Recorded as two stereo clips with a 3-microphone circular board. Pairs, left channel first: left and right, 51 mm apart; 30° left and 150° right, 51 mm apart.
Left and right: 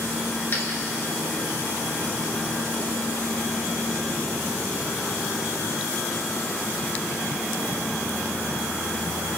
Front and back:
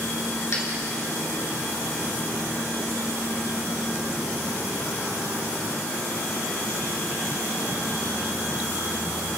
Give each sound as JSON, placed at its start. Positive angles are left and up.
{"t": 0.5, "sound": "a dropped coin", "azimuth_deg": 50, "distance_m": 2.5}